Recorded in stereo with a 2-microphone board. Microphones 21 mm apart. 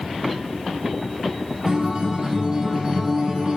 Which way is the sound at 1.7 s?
45° right (ahead or behind).